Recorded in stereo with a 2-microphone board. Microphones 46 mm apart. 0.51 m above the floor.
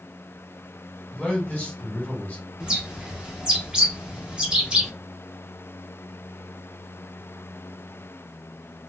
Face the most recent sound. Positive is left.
turn(degrees=-20)  # may be behind; listen again after turning